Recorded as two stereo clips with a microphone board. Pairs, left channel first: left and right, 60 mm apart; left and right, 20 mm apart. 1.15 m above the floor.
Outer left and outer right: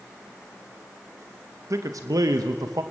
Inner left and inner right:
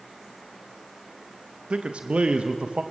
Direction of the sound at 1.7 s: 60° right (ahead or behind).